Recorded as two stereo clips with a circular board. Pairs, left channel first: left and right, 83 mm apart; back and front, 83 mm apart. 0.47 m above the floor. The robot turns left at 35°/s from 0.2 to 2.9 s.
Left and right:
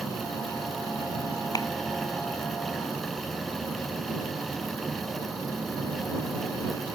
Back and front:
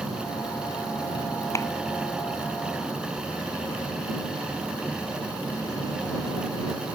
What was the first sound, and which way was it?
A clap, 130° left.